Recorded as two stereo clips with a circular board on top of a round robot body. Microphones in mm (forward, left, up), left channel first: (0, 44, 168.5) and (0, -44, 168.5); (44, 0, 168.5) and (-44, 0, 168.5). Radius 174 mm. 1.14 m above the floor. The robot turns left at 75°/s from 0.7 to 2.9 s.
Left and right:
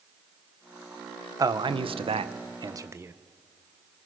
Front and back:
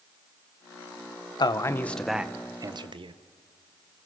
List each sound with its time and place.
1.4 s a man speaking: 40° right, 0.8 m; by 3.1 s 150° right, 0.8 m